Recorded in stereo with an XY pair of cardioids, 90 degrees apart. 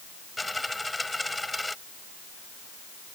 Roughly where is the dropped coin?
Ahead.